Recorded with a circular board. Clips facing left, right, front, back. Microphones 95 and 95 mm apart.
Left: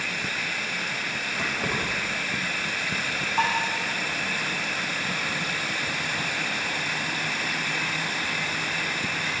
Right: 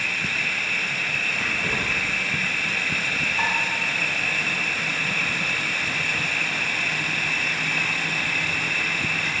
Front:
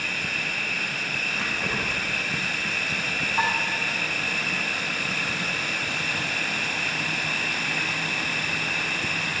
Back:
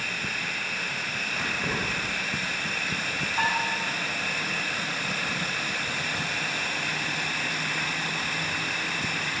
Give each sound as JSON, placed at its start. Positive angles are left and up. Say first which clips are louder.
{"t": 0.0, "sound": "an insect", "louder": "right 2 dB, front 1 dB", "azimuth_deg": 20, "distance_m": 0.8}
{"t": 1.4, "sound": "keys jangling", "louder": "left 1 dB, even", "azimuth_deg": 100, "distance_m": 5.0}
{"t": 3.4, "sound": "dishes clattering", "louder": "left 3 dB, front 2 dB", "azimuth_deg": 70, "distance_m": 5.0}